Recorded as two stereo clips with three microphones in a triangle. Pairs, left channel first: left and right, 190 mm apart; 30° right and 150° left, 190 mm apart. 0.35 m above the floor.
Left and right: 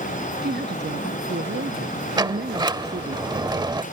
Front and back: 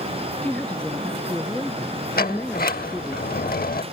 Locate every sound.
0.4 s a woman speaking: 115° right
2.2 s a sliding door: 25° right